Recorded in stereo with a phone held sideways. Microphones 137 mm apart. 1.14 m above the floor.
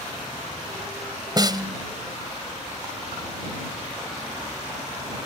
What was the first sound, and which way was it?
A snare drum, 35° right (ahead or behind).